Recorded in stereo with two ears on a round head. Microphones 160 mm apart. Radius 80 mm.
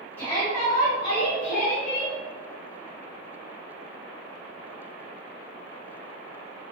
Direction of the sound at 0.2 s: 10° left (ahead or behind).